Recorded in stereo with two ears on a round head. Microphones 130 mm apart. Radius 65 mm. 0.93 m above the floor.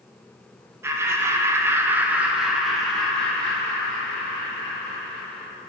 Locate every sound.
0.8 s laughter: 15° right (ahead or behind), 0.9 m; by 5.5 s 10° left (ahead or behind), 2 m